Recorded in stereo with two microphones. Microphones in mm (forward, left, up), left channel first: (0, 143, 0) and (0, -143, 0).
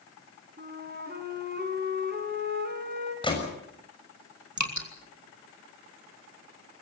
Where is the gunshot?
15° left (ahead or behind), 6.5 m.